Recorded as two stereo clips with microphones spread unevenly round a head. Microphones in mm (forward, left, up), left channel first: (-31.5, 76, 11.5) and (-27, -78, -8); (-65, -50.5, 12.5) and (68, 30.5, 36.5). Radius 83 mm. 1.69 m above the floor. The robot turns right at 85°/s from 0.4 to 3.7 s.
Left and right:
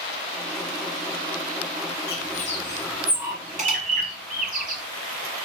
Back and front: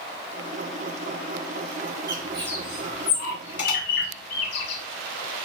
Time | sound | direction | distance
2.1 | a bird | 100° left | 5 m